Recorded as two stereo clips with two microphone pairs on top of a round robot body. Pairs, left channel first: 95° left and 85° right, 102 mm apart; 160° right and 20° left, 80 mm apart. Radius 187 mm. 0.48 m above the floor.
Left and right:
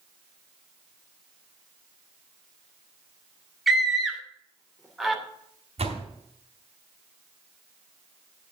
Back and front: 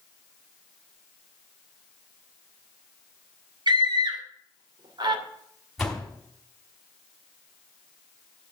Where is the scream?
Straight ahead, 2.5 m.